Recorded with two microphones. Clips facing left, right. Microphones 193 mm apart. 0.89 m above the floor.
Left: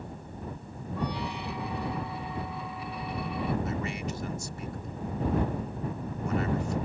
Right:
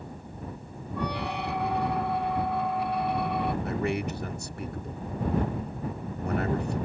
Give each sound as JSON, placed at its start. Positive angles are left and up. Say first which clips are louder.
{"t": 1.0, "sound": "a squeak", "louder": "right 2 dB", "side_deg": -65}
{"t": 3.6, "sound": "a man speaking", "louder": "right 4 dB", "side_deg": -60}